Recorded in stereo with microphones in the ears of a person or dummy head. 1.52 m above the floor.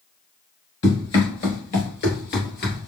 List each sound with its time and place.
0.8 s running footsteps: 25° left (ahead or behind), 1.7 m; by 2.9 s 45° left (ahead or behind), 2 m